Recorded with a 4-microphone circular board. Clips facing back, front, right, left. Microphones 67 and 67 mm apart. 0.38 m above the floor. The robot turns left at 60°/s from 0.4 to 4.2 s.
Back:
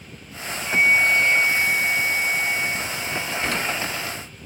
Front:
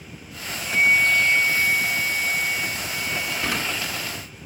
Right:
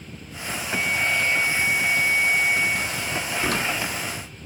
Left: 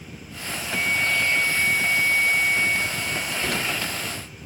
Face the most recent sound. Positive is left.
turn(degrees=-120)